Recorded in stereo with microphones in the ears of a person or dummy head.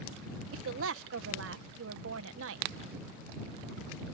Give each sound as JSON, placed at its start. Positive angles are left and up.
{"t": 0.5, "sound": "a woman speaking", "side_deg": -80}